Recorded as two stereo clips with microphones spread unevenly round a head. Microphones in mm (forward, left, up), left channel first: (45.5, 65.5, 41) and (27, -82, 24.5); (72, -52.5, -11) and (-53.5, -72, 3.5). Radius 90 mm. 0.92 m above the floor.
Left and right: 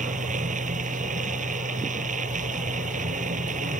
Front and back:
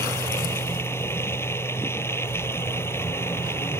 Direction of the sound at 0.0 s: 60° right.